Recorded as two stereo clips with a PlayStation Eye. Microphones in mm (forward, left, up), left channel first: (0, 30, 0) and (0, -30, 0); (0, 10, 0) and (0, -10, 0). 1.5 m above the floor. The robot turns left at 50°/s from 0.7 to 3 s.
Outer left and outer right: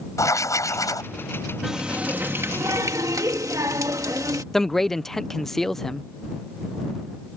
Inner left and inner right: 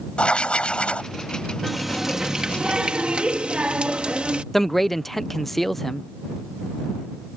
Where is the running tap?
5° right; by 4.4 s 75° right.